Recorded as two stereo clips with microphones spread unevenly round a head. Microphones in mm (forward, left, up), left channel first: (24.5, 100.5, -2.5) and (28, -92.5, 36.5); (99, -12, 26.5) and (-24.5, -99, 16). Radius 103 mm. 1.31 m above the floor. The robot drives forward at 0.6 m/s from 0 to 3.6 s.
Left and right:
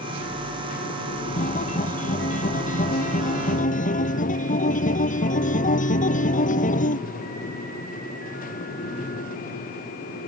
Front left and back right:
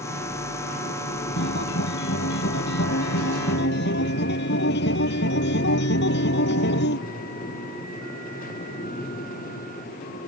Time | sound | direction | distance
1.4 | a guitar | 40° left | ?